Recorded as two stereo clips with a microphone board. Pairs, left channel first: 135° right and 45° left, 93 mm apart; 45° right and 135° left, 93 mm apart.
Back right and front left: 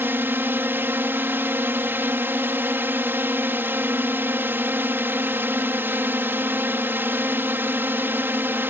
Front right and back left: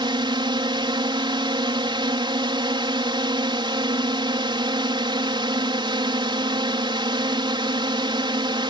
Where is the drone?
110° left.